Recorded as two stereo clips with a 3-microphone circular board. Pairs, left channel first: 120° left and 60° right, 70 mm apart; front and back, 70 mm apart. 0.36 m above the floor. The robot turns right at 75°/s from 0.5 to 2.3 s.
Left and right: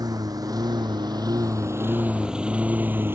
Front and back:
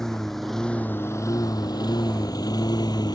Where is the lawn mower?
80° right; by 3.2 s 5° right.